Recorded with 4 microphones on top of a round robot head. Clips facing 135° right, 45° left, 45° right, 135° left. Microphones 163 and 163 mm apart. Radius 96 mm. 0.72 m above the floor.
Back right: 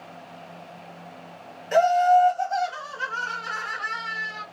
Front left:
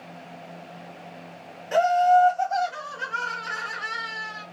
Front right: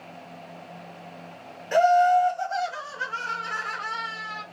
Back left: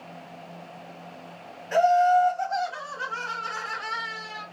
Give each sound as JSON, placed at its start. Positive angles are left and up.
{"t": 1.7, "sound": "laughter", "azimuth_deg": -60, "distance_m": 1.3}